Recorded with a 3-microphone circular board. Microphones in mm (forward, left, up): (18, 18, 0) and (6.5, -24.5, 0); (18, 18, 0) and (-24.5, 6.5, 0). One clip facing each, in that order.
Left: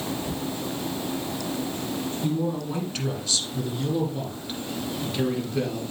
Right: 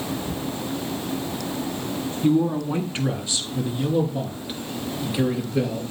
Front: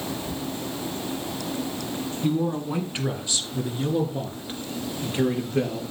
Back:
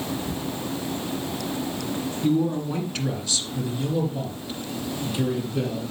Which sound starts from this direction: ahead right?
A man speaking, at 2.2 s.